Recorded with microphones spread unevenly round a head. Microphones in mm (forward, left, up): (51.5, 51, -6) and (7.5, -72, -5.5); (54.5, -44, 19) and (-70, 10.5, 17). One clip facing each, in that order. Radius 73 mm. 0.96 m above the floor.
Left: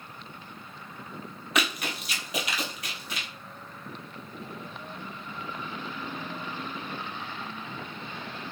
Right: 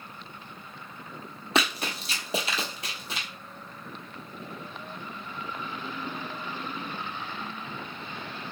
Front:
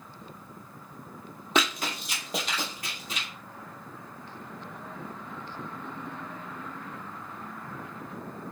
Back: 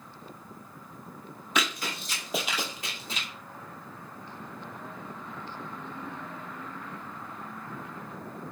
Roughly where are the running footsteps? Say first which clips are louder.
Right 2 dB, front 3 dB; ahead right.